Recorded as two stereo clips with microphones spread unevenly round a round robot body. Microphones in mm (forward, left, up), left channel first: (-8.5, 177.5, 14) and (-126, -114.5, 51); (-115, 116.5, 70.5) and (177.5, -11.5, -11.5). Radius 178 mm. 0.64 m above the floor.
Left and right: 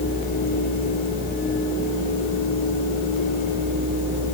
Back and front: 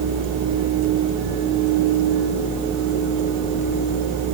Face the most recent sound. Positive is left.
No sound to turn to.